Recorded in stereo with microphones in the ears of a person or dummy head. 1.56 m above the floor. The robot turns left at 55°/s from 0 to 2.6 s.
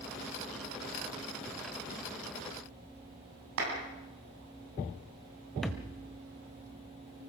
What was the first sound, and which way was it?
A clap, 85° right.